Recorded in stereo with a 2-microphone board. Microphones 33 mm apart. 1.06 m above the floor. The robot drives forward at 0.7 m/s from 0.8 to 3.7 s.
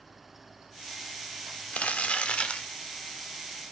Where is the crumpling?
50° left (ahead or behind), 0.9 m; by 2.7 s 35° left (ahead or behind), 1.2 m.